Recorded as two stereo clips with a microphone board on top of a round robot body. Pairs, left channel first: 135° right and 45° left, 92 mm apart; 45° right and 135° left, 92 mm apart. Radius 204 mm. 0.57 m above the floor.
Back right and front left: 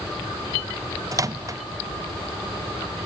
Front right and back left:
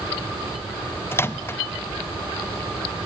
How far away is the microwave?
About 0.6 m.